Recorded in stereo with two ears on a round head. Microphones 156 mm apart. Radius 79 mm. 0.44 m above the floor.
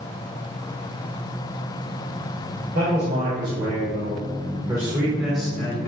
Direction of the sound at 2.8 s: 60° right (ahead or behind).